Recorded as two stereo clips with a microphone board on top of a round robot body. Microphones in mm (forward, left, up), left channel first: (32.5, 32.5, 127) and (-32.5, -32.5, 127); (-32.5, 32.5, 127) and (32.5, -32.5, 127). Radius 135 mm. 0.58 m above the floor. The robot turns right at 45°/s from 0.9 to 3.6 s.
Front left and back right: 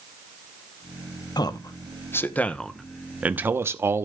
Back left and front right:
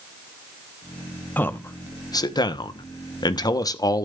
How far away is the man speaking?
About 1.0 m.